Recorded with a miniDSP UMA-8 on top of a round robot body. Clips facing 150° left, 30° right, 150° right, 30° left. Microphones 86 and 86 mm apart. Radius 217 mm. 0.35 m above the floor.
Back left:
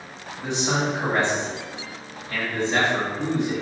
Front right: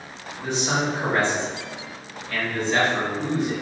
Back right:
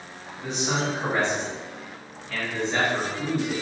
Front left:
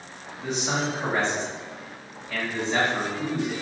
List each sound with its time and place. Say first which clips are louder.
0.4 s a man speaking: even, even; 110° left, 1.5 m